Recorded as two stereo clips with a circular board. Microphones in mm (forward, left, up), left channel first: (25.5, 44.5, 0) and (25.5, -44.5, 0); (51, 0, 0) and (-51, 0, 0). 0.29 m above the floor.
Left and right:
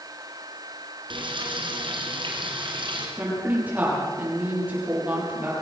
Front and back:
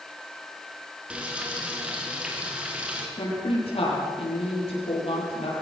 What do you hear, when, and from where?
1.1 s frying: 100° right, 3.5 m
3.2 s a woman speaking: 20° right, 7.5 m